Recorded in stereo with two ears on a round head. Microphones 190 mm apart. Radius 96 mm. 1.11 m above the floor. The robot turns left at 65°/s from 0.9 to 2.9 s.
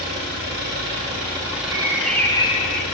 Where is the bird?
155° right, 1.7 m; by 2.8 s 130° left, 1.7 m.